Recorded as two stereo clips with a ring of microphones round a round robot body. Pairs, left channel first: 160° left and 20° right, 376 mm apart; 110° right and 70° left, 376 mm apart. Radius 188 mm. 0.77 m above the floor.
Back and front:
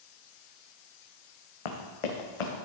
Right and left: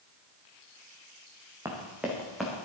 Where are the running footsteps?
150° left, 2.5 m; by 2.6 s 160° left, 3.5 m.